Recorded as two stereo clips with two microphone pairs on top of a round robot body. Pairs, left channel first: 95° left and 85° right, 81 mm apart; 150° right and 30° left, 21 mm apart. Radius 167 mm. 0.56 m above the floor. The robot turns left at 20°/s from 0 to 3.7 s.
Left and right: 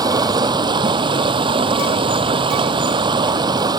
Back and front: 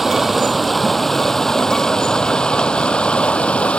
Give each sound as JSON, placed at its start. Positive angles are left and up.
{"t": 0.0, "sound": "running water", "azimuth_deg": -50}